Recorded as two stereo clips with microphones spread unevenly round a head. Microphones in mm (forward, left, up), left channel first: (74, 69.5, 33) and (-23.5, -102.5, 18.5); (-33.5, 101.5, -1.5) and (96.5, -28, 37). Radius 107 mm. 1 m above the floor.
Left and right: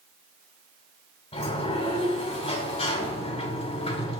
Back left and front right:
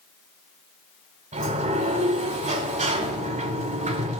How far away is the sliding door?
About 2.5 m.